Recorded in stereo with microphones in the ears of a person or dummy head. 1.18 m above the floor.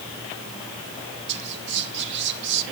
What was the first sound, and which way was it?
Whispering, 60° right (ahead or behind).